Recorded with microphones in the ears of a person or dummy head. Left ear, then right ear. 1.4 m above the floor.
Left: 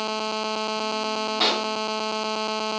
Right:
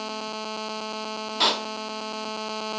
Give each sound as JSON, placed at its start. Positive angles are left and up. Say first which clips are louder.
{"t": 1.4, "sound": "a pop", "louder": "right 1 dB", "side_deg": -30, "distance_m": 1.6}